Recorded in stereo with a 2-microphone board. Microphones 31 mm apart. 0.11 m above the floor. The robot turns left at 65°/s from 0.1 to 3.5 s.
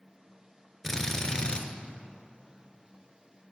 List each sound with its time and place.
0.8 s a drill: 155° left, 0.9 m; by 1.6 s 105° left, 0.9 m